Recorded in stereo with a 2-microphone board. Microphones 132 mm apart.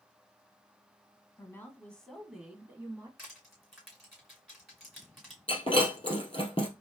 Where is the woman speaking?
25° left (ahead or behind), 1.1 m; by 3.1 s 25° right (ahead or behind), 1.1 m.